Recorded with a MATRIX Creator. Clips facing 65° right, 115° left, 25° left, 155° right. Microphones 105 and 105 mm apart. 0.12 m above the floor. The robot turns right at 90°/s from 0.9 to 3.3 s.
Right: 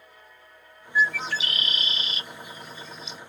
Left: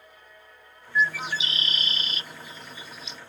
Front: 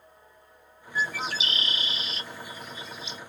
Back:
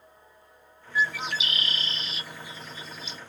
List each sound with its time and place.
0.9 s a bird: 15° left, 0.5 m; by 3.2 s 145° right, 0.5 m